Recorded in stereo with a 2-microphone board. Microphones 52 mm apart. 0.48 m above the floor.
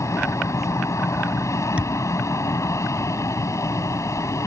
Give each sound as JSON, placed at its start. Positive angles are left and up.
{"t": 0.0, "sound": "an aircraft", "side_deg": 65}
{"t": 1.8, "sound": "a thud", "side_deg": -25}